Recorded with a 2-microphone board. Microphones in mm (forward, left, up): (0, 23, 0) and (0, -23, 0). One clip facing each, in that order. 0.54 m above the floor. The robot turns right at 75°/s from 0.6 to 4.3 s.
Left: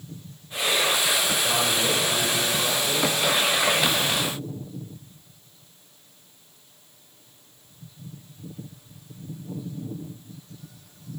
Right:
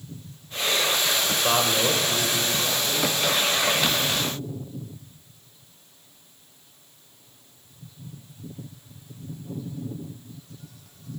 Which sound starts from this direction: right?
A man speaking, at 1.4 s.